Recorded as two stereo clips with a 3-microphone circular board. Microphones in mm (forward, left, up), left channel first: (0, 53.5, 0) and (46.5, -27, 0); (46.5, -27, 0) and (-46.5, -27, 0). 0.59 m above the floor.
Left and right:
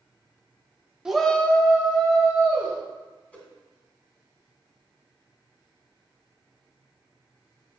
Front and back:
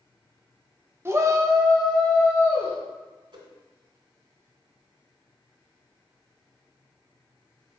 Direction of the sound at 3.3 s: 165° right.